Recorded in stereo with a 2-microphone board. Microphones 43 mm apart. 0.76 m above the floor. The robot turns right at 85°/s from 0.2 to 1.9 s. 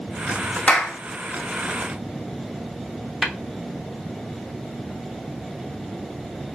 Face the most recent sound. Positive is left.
turn(degrees=-25)  # may be behind; listen again after turning